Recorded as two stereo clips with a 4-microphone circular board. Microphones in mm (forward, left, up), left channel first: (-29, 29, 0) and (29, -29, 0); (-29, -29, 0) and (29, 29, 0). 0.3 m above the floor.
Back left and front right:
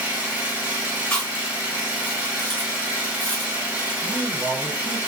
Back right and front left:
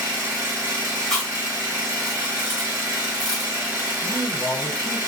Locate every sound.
0.0 s an engine running: 10° left, 1.3 m
1.1 s chewing: 145° left, 1.5 m
4.0 s a man speaking: 120° right, 1.0 m